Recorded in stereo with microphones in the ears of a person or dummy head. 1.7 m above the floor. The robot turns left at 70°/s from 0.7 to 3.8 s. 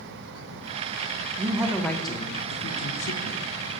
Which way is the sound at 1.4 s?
160° right.